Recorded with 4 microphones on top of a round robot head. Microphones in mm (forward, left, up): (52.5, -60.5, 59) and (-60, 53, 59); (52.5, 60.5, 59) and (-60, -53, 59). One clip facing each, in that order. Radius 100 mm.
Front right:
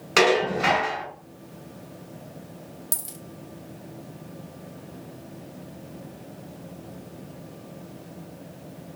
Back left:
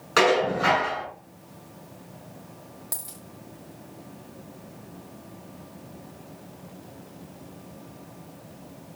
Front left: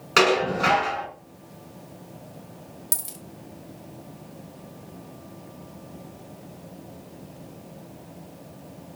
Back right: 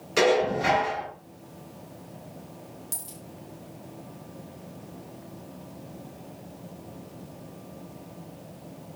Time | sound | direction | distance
0.2 | dishes clattering | 25° left | 4.5 m
2.9 | a dropped coin | 20° left | 1.3 m